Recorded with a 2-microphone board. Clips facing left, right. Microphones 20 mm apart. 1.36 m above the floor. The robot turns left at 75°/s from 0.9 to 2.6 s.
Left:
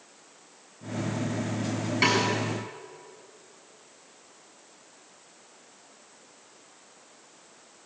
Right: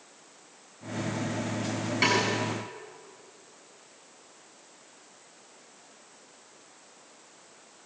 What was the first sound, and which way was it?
A snare drum, centre (ahead or behind).